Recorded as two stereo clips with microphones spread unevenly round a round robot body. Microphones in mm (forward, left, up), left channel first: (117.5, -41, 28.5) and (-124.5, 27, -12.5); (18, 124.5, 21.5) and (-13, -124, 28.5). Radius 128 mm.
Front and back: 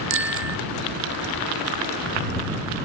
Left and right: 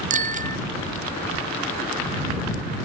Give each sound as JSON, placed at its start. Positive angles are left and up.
{"t": 0.1, "sound": "a bicycle bell", "azimuth_deg": -160}